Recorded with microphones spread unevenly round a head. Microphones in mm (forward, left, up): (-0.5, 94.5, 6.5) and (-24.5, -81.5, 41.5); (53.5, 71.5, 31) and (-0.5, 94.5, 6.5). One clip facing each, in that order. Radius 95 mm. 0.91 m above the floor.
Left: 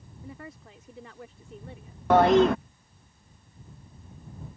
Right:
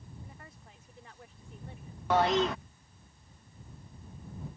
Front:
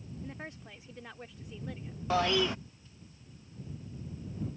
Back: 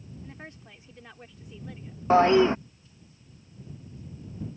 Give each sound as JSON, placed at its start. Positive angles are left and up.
{"t": 0.2, "sound": "a woman speaking", "azimuth_deg": 65}
{"t": 2.1, "sound": "a toilet flushing", "azimuth_deg": 115}